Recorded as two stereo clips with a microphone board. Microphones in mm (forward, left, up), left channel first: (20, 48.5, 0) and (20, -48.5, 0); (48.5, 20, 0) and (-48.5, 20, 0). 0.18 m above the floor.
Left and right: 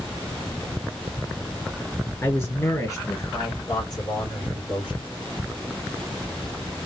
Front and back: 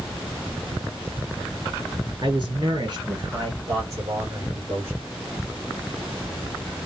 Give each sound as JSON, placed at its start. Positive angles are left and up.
{"t": 2.2, "sound": "a man speaking", "azimuth_deg": 150, "distance_m": 3.0}